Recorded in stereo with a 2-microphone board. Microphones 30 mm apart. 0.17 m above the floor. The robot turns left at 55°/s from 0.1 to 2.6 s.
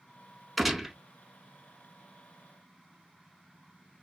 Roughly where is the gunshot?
Centre.